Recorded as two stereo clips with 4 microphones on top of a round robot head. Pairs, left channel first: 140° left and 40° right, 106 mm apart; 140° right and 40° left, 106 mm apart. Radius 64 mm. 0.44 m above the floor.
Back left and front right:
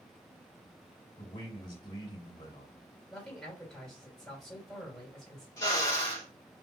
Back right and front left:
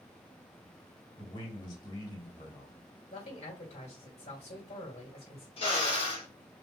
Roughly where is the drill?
Behind.